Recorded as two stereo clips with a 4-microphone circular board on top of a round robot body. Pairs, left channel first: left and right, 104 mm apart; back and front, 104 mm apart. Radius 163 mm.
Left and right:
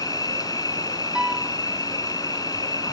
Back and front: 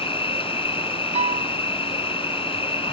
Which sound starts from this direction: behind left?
An insect, at 0.0 s.